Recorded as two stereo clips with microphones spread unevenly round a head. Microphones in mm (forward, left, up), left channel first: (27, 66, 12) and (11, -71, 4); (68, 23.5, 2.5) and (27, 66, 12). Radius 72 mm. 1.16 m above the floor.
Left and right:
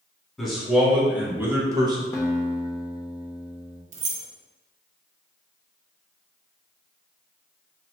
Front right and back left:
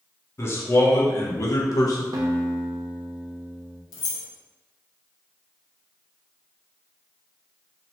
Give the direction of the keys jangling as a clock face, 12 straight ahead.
2 o'clock.